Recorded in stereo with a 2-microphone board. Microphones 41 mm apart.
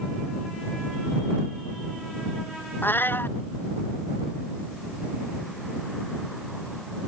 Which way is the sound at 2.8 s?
55° left (ahead or behind).